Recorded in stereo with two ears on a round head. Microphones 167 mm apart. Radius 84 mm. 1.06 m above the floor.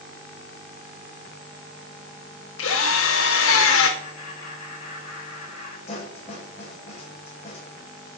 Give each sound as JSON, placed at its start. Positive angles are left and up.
{"t": 2.6, "sound": "a drill", "side_deg": 75, "distance_m": 2.0}
{"t": 4.0, "sound": "laughter", "side_deg": 35, "distance_m": 6.5}
{"t": 5.9, "sound": "a snare drum", "side_deg": 35, "distance_m": 4.5}